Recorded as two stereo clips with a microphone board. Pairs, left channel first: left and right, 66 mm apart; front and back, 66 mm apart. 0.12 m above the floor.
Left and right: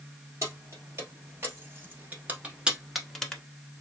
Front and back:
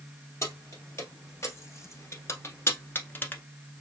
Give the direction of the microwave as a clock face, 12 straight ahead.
I don't hear a microwave.